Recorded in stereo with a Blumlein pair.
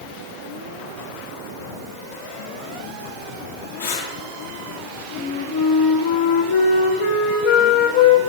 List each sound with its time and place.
3.8 s breathing: 55° left, 3 m
5.2 s a flute: 50° left, 2 m